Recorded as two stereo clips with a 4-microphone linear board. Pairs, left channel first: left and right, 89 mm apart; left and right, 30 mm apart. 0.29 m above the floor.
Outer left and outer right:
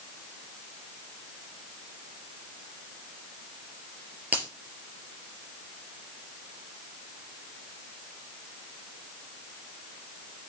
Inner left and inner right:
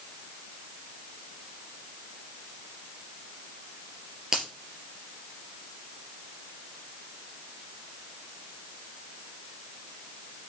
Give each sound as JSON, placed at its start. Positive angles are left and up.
{"t": 4.3, "sound": "a finger snap", "side_deg": -20, "distance_m": 4.0}